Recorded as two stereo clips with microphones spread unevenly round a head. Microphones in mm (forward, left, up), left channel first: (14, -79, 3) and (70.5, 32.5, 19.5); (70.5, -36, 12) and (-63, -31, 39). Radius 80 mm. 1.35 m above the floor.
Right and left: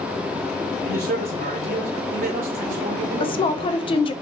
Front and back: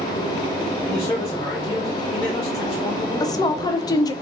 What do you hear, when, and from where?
0.8 s a man speaking: 70° left, 1.1 m
3.2 s a woman speaking: 70° right, 0.5 m